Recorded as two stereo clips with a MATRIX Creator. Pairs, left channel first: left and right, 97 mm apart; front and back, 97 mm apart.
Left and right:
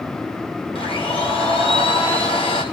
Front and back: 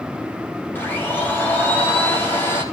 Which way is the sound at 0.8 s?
70° left.